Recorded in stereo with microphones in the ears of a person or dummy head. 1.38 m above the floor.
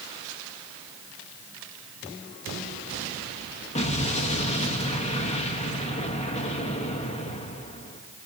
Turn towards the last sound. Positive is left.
turn(degrees=30)  # may be behind; listen again after turning